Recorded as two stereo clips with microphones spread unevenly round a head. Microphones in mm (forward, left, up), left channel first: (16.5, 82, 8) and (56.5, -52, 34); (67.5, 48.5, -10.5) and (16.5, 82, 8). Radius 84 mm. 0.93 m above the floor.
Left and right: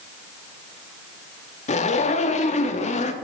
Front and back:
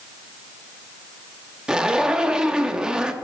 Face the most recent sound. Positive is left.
turn(degrees=70)